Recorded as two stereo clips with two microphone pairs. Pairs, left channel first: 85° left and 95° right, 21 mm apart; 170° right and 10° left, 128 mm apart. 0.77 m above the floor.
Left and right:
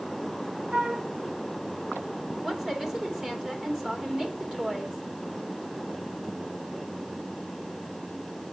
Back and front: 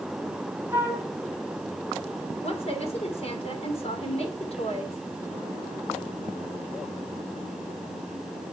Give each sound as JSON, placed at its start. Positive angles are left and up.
{"t": 0.7, "sound": "a flute", "azimuth_deg": -60, "distance_m": 1.1}
{"t": 2.4, "sound": "a woman speaking", "azimuth_deg": -140, "distance_m": 2.0}